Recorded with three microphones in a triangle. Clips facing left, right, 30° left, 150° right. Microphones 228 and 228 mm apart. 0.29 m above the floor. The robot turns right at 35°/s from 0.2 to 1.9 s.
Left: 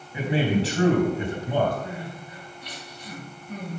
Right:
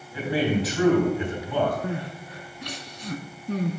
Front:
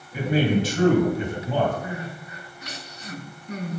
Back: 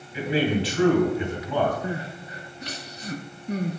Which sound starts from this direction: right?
Crying, at 1.8 s.